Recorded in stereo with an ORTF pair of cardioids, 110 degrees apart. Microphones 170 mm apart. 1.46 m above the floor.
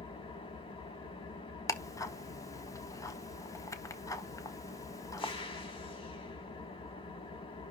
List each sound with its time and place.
0.0 s an engine running: 30° left, 4.5 m
1.7 s ticking: 20° left, 1.5 m